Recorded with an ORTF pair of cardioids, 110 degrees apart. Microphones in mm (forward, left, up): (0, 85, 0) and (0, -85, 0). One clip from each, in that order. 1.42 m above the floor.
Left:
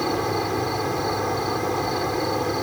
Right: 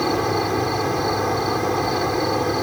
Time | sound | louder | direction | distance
0.0 | an insect | right 3 dB | 15° right | ?